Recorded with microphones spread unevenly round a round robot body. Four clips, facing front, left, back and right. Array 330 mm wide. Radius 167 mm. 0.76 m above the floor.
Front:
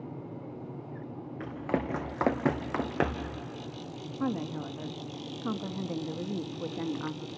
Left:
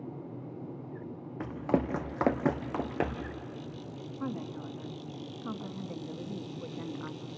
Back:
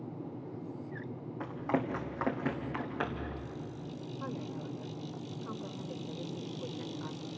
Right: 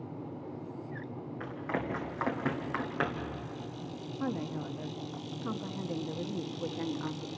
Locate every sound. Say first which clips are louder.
1.4 s running footsteps: left 6 dB, front 1 dB; 85° left, 1.8 m; by 3.3 s 10° left, 2 m
4.2 s a woman speaking: right 2 dB, front 9 dB; 15° right, 1.1 m